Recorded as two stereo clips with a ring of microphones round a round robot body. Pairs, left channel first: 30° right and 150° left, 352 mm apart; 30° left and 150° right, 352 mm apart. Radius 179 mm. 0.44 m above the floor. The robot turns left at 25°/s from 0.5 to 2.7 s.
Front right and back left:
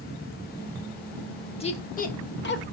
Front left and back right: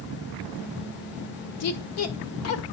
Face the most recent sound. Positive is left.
turn(degrees=10)